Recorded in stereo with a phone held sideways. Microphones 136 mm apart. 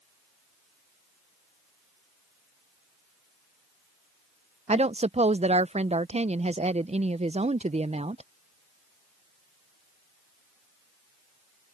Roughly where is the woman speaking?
Right.